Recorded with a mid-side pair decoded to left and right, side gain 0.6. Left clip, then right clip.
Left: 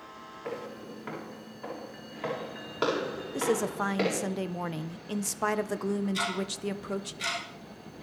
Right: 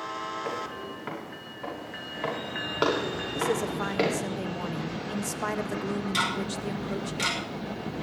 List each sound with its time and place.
0.5 s footsteps: 25° right, 7 m
3.3 s a woman speaking: 20° left, 0.9 m
6.1 s ticking: 65° right, 5.5 m